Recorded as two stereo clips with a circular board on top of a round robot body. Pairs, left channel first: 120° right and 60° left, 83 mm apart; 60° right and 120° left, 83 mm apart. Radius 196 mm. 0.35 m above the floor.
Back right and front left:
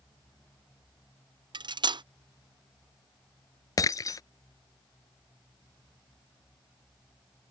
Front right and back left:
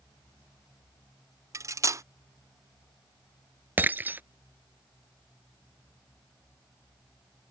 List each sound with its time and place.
1.5 s cutlery clinking: 70° left
3.8 s breaking glass: 170° right